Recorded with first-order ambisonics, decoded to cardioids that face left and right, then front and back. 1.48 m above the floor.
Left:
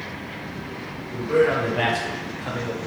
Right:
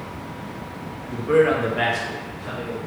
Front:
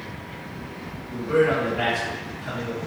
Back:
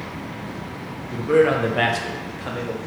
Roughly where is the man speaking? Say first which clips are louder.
Right 2 dB, back 3 dB; behind right.